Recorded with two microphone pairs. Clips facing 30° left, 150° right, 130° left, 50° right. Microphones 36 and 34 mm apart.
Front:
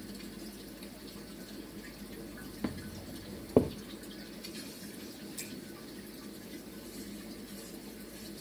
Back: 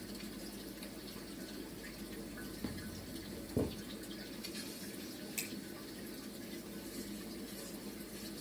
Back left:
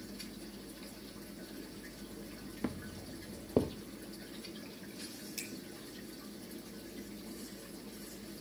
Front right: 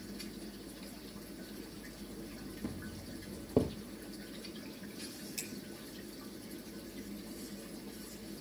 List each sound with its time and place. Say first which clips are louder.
2.6 s footsteps: front 8 dB, back left 5 dB; 85° left, 1.3 m; by 3.7 s 40° left, 1.4 m
5.4 s a finger snap: back 5 dB, back left 1 dB; 145° right, 5 m